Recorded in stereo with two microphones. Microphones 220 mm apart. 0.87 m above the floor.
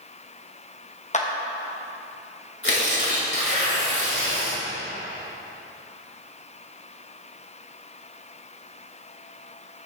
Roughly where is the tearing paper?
Left.